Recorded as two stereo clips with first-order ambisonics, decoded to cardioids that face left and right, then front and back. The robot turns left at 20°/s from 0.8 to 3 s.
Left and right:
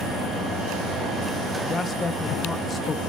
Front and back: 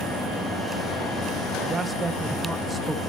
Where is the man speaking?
130° left, 0.6 m; by 3.0 s 100° left, 0.6 m.